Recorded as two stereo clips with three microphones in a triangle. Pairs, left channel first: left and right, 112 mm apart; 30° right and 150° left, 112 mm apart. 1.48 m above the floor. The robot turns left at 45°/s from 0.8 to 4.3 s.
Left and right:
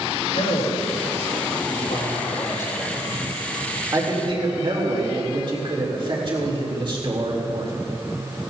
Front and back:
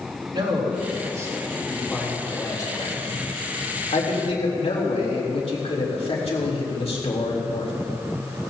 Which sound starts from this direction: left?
A man speaking, at 0.3 s.